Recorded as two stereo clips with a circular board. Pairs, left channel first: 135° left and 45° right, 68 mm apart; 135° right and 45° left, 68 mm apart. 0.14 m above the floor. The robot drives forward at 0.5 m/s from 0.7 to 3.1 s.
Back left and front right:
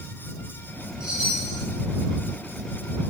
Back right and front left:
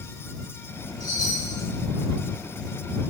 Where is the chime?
120° right, 3.5 m; by 1.6 s 125° right, 4 m.